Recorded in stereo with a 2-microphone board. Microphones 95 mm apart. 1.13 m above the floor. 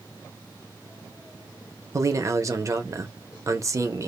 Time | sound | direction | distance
1.9 | a man speaking | 35° right (ahead or behind) | 0.6 m